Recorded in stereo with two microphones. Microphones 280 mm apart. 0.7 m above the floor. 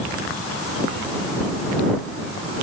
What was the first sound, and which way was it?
Only background noise.